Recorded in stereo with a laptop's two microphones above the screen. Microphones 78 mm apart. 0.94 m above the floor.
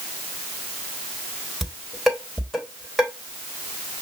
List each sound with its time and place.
1.6 s dishes clattering: 5° right (ahead or behind), 3 m